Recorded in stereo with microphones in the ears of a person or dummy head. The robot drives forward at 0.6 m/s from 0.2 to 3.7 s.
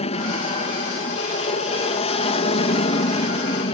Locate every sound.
0.0 s an aircraft: 35° left (ahead or behind); by 3.8 s 30° left (ahead or behind)